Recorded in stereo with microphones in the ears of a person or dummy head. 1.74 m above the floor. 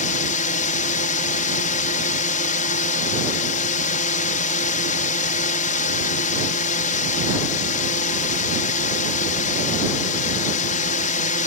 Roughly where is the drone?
Left.